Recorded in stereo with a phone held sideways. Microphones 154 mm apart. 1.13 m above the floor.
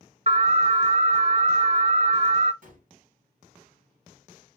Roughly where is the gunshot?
Right.